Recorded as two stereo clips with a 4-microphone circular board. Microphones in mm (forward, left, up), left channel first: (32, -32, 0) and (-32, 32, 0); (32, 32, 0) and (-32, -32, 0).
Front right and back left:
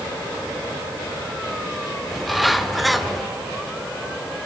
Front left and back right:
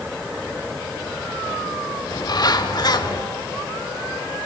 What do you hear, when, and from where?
2.1 s a bird: 45° left, 0.8 m